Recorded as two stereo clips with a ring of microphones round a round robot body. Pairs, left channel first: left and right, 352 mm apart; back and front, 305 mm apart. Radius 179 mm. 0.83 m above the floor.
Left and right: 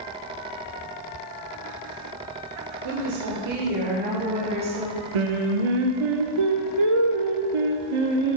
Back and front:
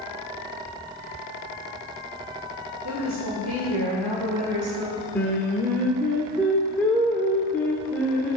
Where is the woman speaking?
50° right, 2.5 m; by 5.0 s 15° right, 4 m.